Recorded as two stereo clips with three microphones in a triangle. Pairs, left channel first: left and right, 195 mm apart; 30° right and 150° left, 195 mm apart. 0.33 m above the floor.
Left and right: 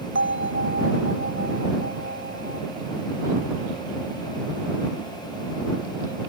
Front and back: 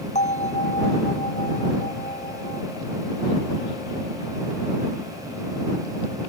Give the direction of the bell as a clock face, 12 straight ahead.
3 o'clock.